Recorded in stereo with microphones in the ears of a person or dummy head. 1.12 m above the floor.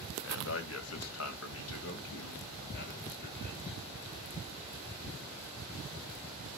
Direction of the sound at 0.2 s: 60° left (ahead or behind).